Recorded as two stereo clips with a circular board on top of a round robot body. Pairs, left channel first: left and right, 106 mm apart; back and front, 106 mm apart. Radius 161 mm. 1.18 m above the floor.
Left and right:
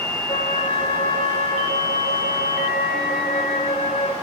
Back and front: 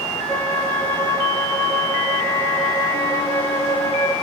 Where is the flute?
115° left, 1.0 m.